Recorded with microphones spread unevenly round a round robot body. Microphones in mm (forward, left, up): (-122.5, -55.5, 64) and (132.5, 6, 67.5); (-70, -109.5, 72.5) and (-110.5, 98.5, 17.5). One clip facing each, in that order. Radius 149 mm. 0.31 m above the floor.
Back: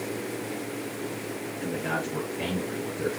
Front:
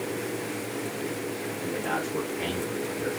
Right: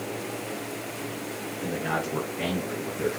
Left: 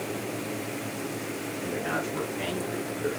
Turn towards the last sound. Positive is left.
turn(degrees=-115)